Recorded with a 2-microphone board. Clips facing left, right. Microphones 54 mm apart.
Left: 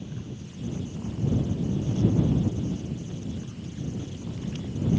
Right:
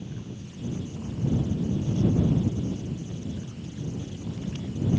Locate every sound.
Only background noise.